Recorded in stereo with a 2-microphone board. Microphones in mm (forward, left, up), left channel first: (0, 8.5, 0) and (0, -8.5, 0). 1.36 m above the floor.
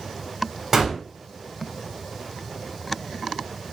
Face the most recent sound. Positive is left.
turn(degrees=-15)  # may be behind; listen again after turning